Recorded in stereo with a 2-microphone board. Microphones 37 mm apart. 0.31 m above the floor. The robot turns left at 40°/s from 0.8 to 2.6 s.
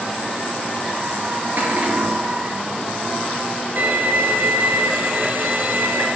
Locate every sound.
1.6 s a cupboard door: 50° right (ahead or behind), 5.5 m; by 2.2 s 20° right (ahead or behind), 5.5 m
3.8 s a violin: 55° right (ahead or behind), 3 m